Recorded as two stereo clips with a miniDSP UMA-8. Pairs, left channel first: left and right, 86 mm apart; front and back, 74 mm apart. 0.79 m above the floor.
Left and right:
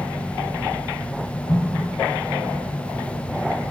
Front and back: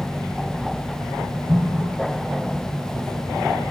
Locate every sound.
1.5 s an explosion: 95° left, 1.5 m